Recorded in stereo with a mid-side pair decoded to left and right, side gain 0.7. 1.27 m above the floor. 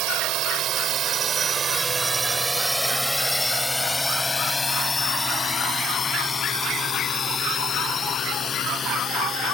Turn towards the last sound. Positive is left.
turn(degrees=35)